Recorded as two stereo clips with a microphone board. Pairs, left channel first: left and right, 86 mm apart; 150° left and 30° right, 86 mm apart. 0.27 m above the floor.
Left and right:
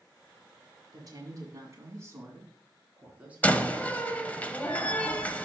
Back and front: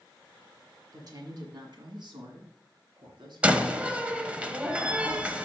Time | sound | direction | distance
0.9 | a woman speaking | 60° right | 2 m
3.4 | a door slam | 35° left | 0.8 m